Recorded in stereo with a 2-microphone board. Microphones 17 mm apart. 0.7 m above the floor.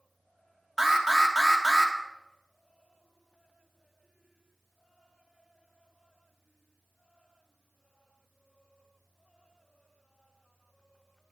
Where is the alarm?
20° right (ahead or behind), 1.2 m.